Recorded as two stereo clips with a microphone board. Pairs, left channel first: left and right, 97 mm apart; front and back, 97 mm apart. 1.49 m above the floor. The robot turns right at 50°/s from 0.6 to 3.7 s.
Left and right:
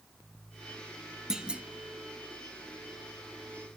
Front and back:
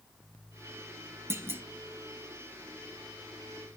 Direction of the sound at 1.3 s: 170° right.